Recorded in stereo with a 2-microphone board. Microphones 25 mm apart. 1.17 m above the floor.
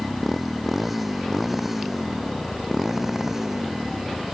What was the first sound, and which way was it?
A motorcycle, centre (ahead or behind).